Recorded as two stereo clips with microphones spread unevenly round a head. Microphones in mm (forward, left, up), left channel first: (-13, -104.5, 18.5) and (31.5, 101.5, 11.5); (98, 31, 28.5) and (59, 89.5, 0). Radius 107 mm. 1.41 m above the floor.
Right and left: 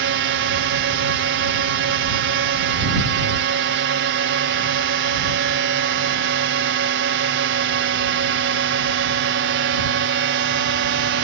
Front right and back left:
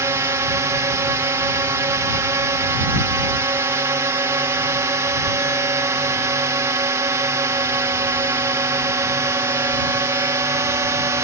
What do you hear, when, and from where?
0.0 s a drone: 95° left